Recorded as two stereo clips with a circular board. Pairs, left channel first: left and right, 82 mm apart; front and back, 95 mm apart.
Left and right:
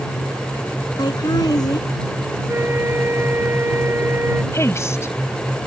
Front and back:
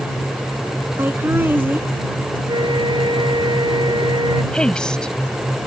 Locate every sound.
1.0 s laughter: 115° left
2.5 s a flute: 150° right
4.5 s a woman speaking: 75° left